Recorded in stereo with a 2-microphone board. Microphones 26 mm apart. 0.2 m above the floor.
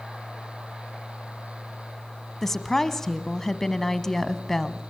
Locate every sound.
2.4 s a woman speaking: 15° left (ahead or behind), 1.2 m